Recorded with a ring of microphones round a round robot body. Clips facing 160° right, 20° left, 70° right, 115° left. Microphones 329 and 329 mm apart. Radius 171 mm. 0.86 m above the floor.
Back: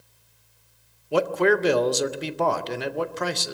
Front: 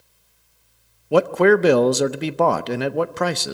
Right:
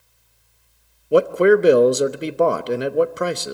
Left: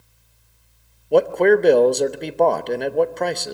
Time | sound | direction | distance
1.1 | a man speaking | 10° left | 0.7 m